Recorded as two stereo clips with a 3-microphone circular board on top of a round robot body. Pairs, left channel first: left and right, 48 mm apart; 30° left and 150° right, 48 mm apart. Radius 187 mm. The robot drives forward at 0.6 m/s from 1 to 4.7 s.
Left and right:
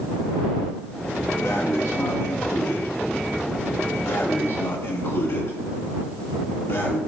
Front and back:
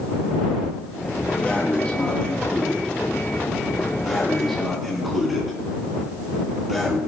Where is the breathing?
90° left, 3 m; by 7.0 s 120° left, 4 m.